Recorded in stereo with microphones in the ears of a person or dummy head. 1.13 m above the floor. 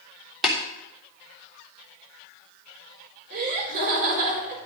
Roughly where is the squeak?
I don't hear a squeak.